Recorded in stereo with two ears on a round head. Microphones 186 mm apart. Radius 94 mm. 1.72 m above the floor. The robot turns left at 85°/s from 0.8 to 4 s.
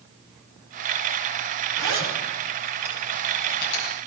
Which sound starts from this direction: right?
A zipper, at 1.8 s.